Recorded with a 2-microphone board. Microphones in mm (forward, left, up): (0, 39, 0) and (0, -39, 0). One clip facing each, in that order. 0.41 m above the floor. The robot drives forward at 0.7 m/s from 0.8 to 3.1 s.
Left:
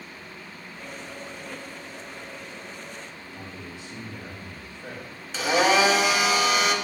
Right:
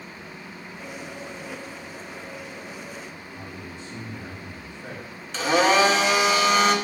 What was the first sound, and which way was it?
A man speaking, 15° left (ahead or behind).